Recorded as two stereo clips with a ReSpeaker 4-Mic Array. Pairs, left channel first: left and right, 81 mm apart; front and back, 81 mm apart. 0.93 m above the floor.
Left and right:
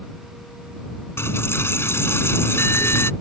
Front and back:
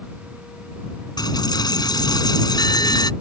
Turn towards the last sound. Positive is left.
turn(degrees=30)